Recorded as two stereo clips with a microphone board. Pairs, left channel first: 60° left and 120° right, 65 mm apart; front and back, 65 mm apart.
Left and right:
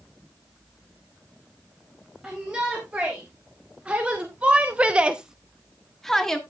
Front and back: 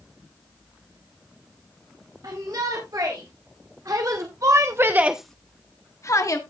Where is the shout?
165° left, 4 m; by 6.4 s 20° right, 1.7 m.